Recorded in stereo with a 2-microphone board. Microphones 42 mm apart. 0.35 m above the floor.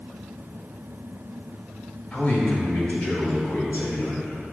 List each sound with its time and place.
2.1 s a man speaking: 35° left (ahead or behind), 1.3 m; by 4.4 s 50° left (ahead or behind), 3 m